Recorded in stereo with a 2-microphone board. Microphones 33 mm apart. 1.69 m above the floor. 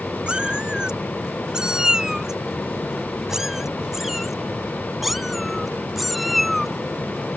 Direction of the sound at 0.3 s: 30° right (ahead or behind).